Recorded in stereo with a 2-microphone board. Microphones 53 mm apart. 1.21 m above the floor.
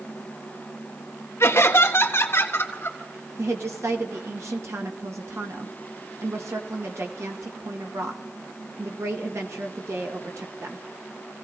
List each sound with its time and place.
1.4 s laughter: 55° left (ahead or behind), 1.4 m; by 3.0 s 45° left (ahead or behind), 2.5 m
3.4 s a woman speaking: 65° right (ahead or behind), 1.7 m